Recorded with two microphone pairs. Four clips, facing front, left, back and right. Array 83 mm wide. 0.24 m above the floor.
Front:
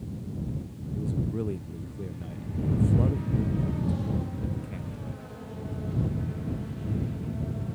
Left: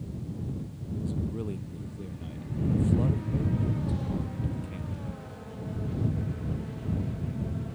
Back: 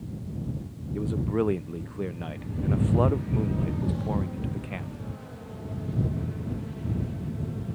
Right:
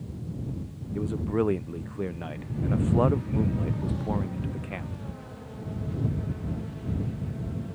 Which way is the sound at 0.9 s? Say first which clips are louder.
Right 7 dB, back 5 dB; 125° right.